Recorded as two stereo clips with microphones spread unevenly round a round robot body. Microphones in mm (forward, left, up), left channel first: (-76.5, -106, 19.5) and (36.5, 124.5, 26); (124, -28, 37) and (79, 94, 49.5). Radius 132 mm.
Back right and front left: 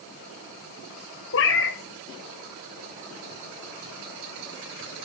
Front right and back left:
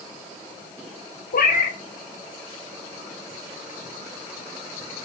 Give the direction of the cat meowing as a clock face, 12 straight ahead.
2 o'clock.